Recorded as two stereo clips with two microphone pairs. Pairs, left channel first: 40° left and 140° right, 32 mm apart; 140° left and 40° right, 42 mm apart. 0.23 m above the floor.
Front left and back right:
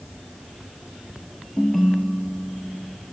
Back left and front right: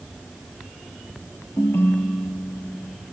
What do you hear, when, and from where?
1.6 s a ringtone: 130° left, 2.5 m